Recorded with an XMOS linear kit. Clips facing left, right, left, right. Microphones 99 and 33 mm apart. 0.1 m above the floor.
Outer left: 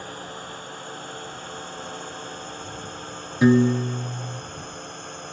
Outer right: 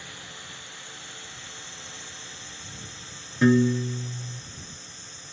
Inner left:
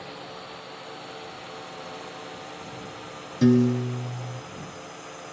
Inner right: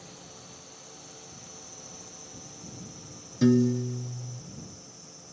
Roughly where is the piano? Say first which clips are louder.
Outer left 3 dB, inner left 3 dB; centre.